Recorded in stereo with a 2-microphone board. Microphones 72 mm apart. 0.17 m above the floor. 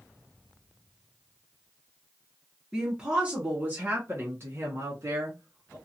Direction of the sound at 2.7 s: 10° right (ahead or behind).